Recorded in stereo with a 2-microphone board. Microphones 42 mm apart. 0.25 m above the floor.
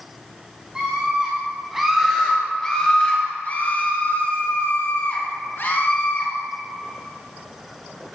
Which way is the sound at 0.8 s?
20° right (ahead or behind).